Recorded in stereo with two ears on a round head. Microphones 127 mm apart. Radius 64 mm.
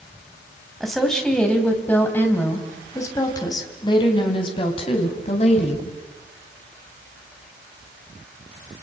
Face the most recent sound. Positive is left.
turn(degrees=45)  # may be behind; listen again after turning